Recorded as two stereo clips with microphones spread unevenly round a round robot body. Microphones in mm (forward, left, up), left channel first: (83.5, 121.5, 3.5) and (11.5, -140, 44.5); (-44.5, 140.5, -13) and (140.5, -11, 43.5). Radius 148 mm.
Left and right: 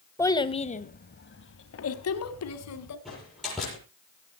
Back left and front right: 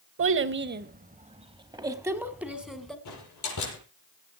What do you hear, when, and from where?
0.2 s a child speaking: 5° right, 1.3 m; by 3.0 s 55° left, 2.5 m
3.0 s a door slam: 165° left, 8 m